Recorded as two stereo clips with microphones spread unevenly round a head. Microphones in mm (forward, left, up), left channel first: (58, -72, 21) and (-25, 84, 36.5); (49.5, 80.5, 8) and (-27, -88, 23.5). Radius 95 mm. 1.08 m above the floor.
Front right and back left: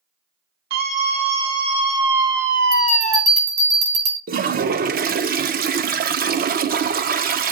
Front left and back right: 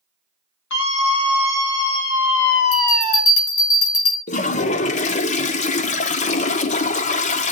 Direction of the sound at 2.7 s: 85° left.